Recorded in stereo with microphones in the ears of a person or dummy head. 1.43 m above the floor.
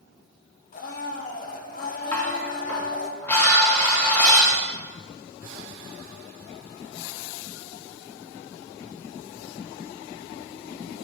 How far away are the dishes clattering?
About 1.2 m.